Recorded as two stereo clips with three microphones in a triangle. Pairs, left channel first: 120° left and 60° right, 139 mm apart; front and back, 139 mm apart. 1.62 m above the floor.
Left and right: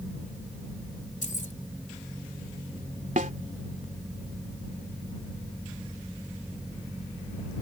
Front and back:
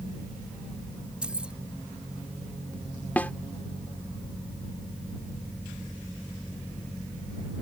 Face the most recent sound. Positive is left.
turn(degrees=-80)